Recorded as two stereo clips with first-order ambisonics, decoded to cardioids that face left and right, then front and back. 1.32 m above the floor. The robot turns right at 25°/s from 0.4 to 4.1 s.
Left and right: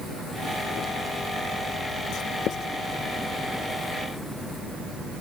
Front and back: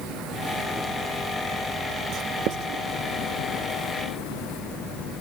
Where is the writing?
135° left; by 2.7 s 150° left.